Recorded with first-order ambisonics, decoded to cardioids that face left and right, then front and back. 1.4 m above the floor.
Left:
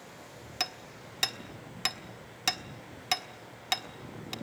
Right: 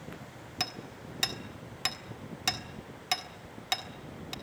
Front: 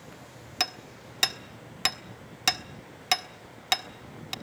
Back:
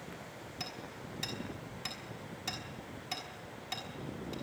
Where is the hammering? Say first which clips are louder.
Left 1 dB, front 13 dB; 5° left, 1.4 m.